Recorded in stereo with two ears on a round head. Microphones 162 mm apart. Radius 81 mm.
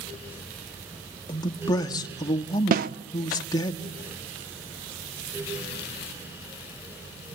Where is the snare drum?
50° right (ahead or behind), 0.7 m.